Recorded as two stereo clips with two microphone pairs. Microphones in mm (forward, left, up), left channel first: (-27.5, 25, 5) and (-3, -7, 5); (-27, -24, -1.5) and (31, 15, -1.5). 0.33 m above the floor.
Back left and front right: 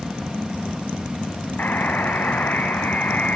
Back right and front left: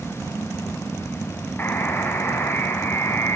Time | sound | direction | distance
1.6 | a buzzer | 160° left | 2.5 m